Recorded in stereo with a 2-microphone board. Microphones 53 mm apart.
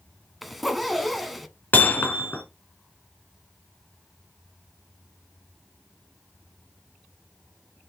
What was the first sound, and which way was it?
A zipper, centre (ahead or behind).